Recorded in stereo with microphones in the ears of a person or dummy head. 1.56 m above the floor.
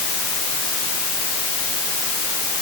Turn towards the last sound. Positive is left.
No sound to turn to.